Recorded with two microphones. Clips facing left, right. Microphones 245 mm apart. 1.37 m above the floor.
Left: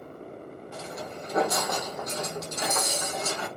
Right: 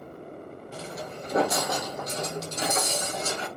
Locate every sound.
0.7 s footsteps: 35° right (ahead or behind), 1.9 m; by 3.5 s 30° right (ahead or behind), 3.5 m